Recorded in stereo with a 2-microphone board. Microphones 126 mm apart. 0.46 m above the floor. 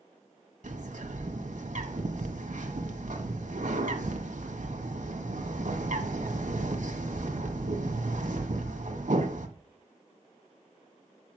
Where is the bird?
70° right (ahead or behind), 1.6 m.